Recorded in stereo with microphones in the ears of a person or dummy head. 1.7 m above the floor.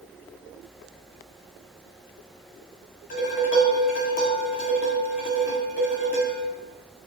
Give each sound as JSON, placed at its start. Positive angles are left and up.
{"t": 3.1, "sound": "dishes clattering", "side_deg": 45, "distance_m": 2.5}